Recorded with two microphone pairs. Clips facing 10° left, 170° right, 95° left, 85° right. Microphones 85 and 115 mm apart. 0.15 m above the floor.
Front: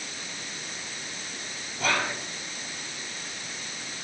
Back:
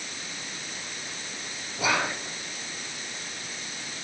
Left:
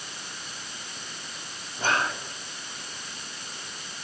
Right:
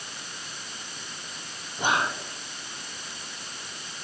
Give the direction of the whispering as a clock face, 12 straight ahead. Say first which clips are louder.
Back 1 dB, right 1 dB; 4 o'clock.